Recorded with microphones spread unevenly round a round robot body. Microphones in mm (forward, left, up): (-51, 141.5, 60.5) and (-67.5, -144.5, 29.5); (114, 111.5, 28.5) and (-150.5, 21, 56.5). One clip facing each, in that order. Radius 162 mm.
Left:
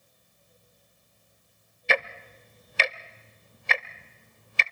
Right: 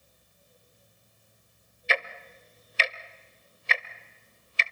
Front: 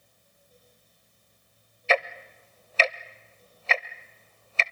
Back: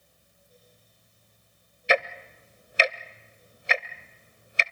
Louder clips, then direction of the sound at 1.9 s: Left 4 dB, back 1 dB; 125° left.